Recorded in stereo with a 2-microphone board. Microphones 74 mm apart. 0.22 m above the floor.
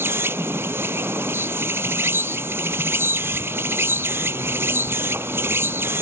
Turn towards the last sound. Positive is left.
turn(degrees=-35)  # may be behind; listen again after turning